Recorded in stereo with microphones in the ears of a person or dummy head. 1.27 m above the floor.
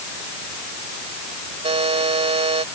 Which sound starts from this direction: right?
A buzzer, at 1.6 s.